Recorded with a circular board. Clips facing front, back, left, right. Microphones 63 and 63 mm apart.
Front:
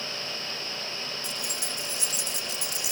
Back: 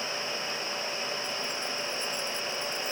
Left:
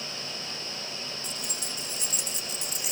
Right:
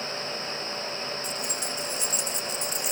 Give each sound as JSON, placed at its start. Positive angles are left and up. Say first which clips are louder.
{"t": 1.2, "sound": "keys jangling", "louder": "back 2 dB, right 6 dB", "azimuth_deg": 0}